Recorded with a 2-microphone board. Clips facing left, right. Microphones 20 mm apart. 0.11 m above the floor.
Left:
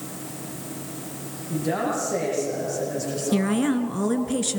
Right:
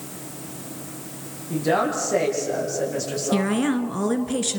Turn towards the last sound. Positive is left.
turn(degrees=-10)  # may be behind; listen again after turning